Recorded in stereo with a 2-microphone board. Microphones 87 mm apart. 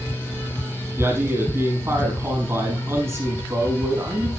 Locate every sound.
1.0 s a man speaking: 30° right (ahead or behind), 5 m